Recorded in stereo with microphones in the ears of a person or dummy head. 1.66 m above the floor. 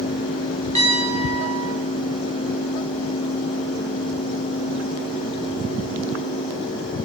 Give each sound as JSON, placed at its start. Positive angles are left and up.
{"t": 0.8, "sound": "a piano", "side_deg": 20, "distance_m": 1.7}